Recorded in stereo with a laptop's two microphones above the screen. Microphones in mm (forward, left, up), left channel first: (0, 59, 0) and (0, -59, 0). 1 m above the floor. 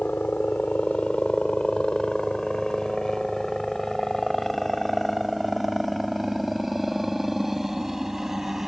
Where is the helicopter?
15° left (ahead or behind); by 8.7 s 5° right (ahead or behind).